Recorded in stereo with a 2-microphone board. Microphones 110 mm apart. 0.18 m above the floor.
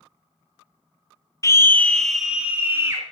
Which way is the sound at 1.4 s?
30° left (ahead or behind).